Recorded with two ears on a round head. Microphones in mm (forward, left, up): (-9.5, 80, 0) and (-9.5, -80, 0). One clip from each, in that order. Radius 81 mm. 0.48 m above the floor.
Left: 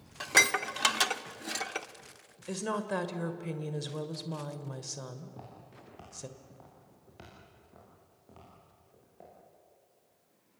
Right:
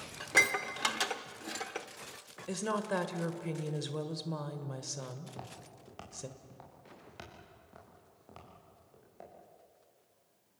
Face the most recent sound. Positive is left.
turn(degrees=-40)  # may be behind; listen again after turning